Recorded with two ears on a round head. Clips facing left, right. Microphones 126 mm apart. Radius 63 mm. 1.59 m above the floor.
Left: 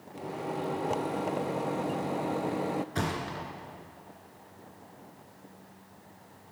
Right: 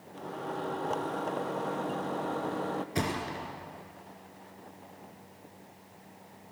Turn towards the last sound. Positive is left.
turn(degrees=-15)  # may be behind; listen again after turning